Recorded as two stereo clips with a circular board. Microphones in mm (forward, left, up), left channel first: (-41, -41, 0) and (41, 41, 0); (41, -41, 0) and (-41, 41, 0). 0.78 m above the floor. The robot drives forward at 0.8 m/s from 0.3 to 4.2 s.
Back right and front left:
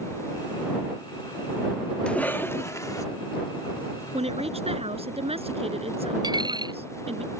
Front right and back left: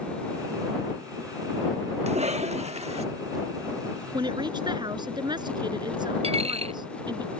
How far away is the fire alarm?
No fire alarm in this recording.